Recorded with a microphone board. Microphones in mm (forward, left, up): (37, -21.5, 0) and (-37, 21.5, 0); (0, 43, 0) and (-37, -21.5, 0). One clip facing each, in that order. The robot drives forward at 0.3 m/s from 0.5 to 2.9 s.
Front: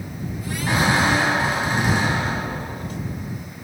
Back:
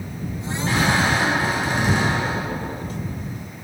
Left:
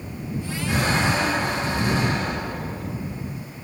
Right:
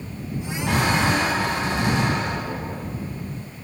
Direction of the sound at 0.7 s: 95° right.